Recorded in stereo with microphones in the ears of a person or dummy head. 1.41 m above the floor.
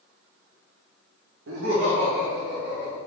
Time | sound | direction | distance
1.5 | laughter | 70° right (ahead or behind) | 1.0 m